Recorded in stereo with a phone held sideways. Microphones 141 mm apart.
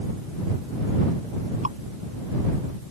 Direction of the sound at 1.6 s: 55° right (ahead or behind).